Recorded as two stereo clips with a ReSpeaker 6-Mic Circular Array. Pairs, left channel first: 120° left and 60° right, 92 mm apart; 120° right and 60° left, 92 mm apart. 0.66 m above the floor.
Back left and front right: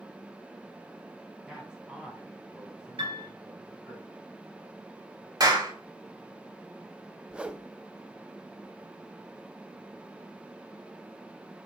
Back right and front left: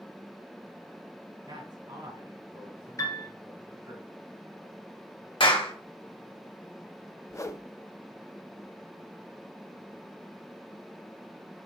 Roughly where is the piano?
Right.